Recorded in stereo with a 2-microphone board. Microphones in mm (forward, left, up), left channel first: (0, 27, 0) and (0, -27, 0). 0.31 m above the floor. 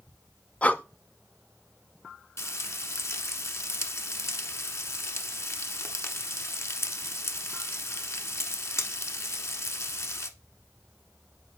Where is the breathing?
25° left (ahead or behind), 0.6 m.